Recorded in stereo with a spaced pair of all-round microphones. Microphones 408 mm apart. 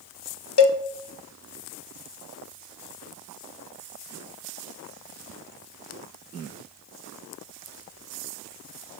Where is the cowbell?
75° left (ahead or behind), 0.7 m.